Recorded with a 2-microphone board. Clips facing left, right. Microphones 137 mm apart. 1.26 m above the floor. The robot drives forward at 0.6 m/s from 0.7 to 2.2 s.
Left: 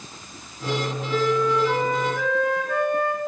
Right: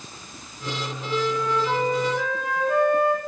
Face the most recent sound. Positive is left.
turn(degrees=-35)  # may be behind; listen again after turning